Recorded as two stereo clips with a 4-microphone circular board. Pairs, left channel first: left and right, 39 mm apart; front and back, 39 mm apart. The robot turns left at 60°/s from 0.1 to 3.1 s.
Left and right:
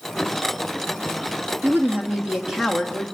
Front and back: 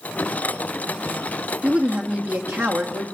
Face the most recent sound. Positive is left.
turn(degrees=155)